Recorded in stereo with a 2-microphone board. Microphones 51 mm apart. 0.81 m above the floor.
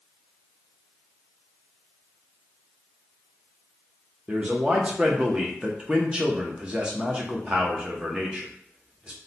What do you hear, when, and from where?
4.3 s a man speaking: 20° right (ahead or behind), 0.6 m